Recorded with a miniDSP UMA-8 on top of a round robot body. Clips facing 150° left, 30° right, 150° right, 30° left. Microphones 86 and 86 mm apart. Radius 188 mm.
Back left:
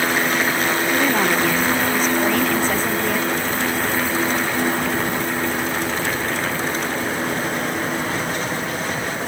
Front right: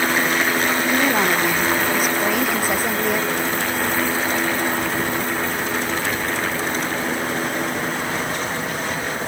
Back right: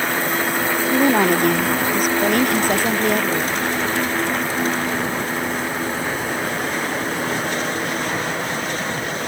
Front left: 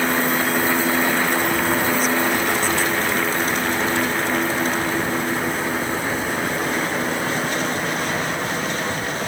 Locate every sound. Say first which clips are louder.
0.9 s a woman speaking: even, back right 4 dB; 110° right